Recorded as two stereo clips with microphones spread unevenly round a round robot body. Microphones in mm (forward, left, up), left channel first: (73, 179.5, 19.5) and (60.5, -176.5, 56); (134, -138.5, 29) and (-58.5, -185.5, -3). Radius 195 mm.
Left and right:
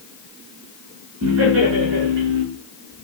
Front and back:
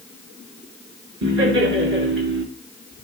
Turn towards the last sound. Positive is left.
turn(degrees=-155)